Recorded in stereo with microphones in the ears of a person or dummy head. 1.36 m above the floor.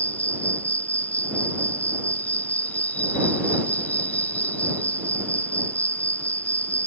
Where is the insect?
5° left (ahead or behind).